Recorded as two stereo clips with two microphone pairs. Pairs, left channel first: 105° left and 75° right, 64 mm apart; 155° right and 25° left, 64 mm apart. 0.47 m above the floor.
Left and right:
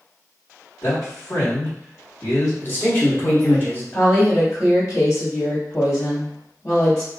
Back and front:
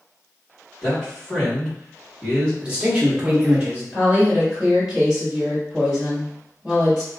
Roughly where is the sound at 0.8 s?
Behind left.